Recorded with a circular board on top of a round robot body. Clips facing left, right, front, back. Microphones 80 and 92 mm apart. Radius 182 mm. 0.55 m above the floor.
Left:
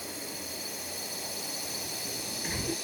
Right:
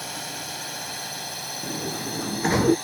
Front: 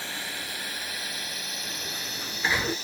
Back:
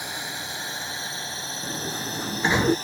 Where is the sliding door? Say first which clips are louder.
Right 10 dB, back 10 dB; 110° right.